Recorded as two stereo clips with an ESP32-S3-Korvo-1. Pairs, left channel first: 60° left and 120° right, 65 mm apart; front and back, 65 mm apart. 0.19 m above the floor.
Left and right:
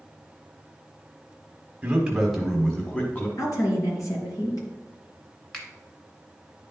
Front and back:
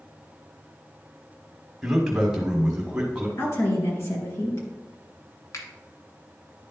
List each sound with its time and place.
1.8 s a man speaking: 105° right, 1.2 m; by 3.3 s 110° left, 1.5 m
3.4 s a woman speaking: 40° left, 3.5 m
5.5 s a finger snap: 10° right, 1.4 m